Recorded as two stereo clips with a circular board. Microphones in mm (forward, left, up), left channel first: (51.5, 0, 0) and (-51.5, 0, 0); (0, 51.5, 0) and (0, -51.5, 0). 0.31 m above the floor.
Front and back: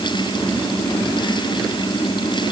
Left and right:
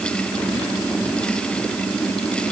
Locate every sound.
Only background noise.